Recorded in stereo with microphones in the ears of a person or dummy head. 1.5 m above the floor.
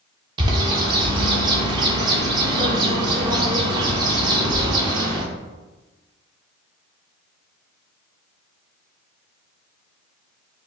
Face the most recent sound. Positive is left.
turn(degrees=-30)  # may be behind; listen again after turning